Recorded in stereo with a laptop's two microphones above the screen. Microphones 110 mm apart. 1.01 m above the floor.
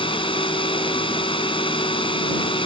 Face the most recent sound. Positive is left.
turn(degrees=50)  # may be behind; listen again after turning